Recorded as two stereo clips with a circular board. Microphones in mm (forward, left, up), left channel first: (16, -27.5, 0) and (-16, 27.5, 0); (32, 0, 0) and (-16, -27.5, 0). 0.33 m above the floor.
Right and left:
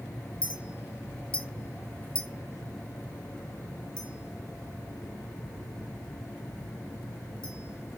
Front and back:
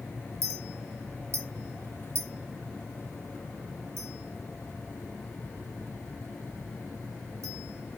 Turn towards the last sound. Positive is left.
turn(degrees=-135)